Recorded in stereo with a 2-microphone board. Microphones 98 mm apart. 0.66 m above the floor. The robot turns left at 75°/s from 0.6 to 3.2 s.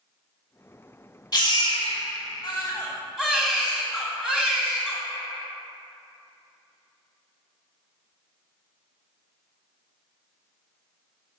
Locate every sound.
1.3 s a baby crying: 135° left, 2.5 m; by 5.0 s 10° right, 2.5 m